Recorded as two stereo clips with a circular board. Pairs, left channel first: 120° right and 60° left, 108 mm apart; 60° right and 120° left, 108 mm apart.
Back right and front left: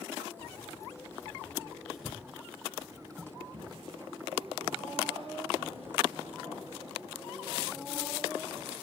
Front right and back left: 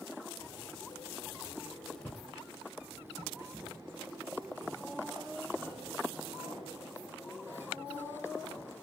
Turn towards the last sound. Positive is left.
turn(degrees=85)